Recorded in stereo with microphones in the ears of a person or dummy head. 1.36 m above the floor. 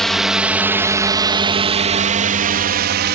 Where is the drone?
Centre (ahead or behind); by 3.1 s 55° right (ahead or behind).